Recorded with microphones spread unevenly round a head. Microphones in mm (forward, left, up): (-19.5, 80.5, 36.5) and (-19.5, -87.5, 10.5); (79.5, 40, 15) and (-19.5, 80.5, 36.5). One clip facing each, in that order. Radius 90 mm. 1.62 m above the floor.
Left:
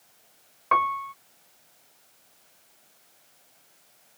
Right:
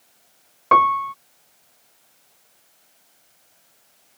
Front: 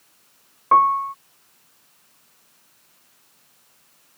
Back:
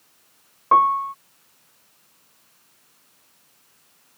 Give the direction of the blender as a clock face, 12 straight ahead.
I don't hear a blender.